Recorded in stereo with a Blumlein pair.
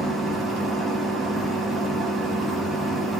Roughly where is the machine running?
Ahead.